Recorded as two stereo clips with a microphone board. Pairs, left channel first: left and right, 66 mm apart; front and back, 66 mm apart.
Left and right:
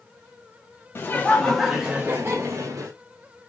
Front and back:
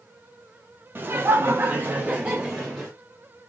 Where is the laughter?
135° left, 0.9 m; by 2.9 s 95° right, 1.2 m.